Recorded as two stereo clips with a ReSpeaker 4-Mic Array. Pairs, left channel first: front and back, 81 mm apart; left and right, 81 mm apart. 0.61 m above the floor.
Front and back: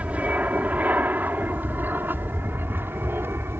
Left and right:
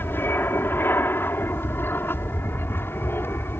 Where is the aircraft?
125° left; by 3.6 s 135° left.